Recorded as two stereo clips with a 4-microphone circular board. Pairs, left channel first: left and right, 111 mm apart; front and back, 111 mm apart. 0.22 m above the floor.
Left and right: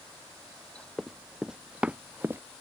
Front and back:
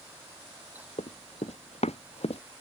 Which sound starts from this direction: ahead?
Running footsteps, at 1.0 s.